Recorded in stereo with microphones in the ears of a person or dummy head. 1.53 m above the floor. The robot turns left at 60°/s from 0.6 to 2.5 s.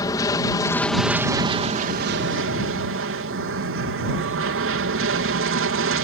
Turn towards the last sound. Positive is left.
turn(degrees=-90)